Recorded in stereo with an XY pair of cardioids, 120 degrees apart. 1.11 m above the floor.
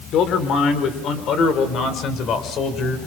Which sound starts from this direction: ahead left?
A man speaking, at 0.1 s.